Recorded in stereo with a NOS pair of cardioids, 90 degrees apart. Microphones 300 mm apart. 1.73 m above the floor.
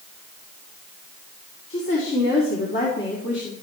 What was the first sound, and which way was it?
A woman speaking, 45° left.